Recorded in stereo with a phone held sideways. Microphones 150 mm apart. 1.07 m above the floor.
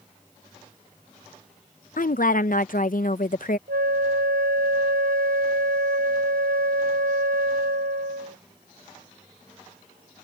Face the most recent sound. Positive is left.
turn(degrees=-80)